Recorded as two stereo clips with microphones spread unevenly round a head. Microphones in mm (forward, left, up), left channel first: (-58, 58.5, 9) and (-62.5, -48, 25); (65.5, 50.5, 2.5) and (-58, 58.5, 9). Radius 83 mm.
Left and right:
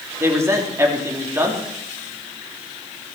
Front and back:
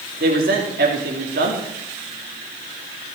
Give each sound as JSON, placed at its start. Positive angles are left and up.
{"t": 0.2, "sound": "a man speaking", "azimuth_deg": -160, "distance_m": 2.5}